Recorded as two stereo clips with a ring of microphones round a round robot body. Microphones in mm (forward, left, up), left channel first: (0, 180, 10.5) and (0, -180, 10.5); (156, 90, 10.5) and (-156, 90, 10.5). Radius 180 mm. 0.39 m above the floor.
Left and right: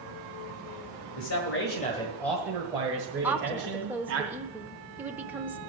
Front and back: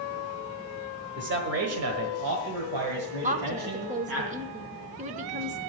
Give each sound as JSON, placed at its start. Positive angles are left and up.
{"t": 1.2, "sound": "a man speaking", "azimuth_deg": 130, "distance_m": 1.8}
{"t": 3.2, "sound": "a woman speaking", "azimuth_deg": -170, "distance_m": 0.8}